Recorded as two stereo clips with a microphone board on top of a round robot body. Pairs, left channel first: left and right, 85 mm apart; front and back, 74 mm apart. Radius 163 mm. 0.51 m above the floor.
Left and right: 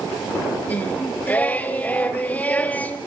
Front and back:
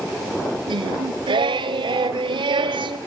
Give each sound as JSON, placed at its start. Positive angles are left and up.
{"t": 0.7, "sound": "singing", "azimuth_deg": 165, "distance_m": 0.6}